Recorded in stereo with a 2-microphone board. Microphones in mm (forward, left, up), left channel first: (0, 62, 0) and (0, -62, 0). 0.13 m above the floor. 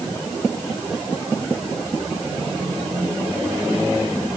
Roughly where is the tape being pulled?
I don't hear tape being pulled.